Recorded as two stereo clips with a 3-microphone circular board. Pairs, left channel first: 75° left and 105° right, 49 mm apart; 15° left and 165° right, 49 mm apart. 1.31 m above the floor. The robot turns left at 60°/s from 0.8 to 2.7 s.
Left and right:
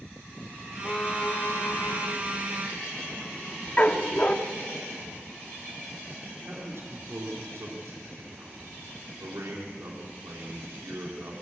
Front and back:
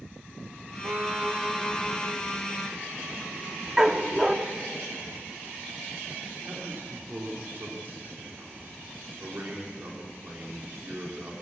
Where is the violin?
155° left, 1.3 m; by 2.1 s 75° left, 1.3 m.